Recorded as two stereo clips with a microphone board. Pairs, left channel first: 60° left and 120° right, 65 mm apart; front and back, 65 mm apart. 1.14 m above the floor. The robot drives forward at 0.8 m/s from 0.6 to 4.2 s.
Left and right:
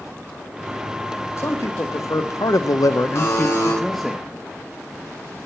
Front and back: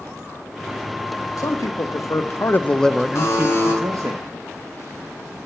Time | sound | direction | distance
1.4 | a man speaking | 20° left | 1.4 m
3.1 | a buzzer | 35° left | 3 m